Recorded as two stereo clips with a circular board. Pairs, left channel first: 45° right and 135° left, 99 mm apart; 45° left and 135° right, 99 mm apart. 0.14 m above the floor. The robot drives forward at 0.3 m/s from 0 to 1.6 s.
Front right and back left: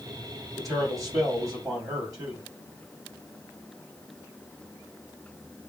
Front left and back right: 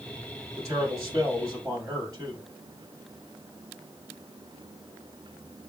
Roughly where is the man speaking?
Behind.